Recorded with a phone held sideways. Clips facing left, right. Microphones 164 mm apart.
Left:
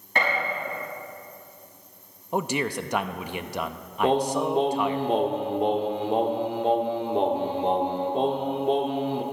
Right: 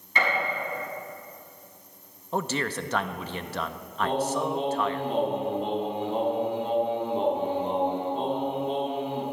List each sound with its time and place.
0.1 s a gunshot: 60° left (ahead or behind), 6 m
2.3 s a man speaking: 15° left (ahead or behind), 0.5 m
4.0 s singing: 80° left, 1.3 m